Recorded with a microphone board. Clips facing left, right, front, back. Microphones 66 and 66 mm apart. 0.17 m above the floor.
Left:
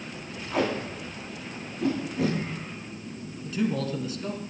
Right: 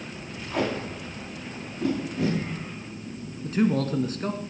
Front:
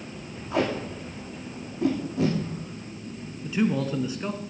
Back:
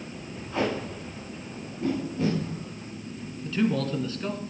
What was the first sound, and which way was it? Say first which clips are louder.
Tape being pulled: left 1 dB, front 2 dB; straight ahead.